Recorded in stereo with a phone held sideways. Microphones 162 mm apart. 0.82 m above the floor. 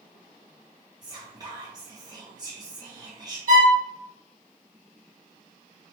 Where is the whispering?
25° right (ahead or behind), 0.7 m.